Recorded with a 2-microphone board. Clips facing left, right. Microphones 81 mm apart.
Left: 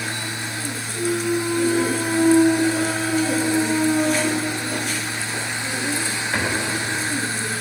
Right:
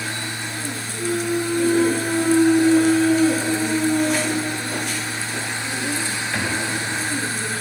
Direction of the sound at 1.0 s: 45° left (ahead or behind).